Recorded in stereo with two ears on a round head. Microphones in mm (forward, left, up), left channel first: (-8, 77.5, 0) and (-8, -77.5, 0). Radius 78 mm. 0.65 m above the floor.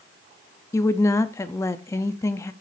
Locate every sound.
0.7 s a woman speaking: 15° left (ahead or behind), 0.6 m